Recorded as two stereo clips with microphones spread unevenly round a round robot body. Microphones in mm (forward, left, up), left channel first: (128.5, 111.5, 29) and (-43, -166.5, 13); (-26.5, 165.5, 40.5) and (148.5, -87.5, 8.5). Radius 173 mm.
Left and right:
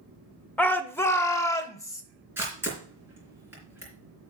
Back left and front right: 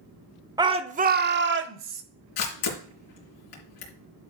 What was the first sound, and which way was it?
A shout, 25° right.